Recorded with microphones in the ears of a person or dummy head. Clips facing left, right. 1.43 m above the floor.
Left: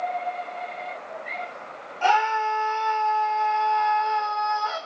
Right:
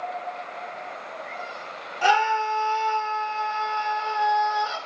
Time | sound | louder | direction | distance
2.0 | a scream | even | 20° right (ahead or behind) | 1.6 m